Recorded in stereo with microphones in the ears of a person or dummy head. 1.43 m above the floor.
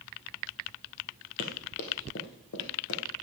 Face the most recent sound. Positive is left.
turn(degrees=65)  # may be behind; listen again after turning